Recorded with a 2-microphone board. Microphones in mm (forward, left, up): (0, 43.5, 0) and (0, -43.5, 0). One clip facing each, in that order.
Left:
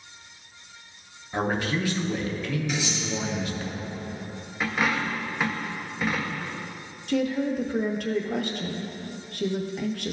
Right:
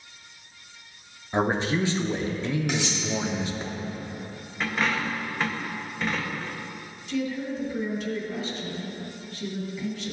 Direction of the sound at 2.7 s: 65° right (ahead or behind).